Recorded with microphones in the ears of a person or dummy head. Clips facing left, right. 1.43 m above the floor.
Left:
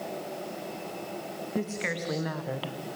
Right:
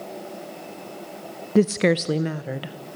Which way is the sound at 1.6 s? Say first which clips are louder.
Right 15 dB; 60° right (ahead or behind).